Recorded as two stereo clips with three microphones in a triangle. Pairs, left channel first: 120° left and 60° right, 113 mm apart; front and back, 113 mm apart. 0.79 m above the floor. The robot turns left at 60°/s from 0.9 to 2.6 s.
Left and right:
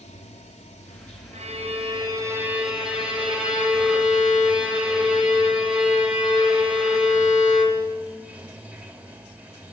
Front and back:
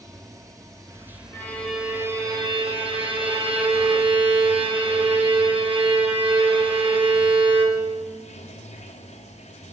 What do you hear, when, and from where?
0.0 s running water: 120° left, 1.9 m; by 9.7 s 15° left, 1.9 m
1.3 s a violin: 70° right, 4.5 m; by 8.0 s 145° right, 4.5 m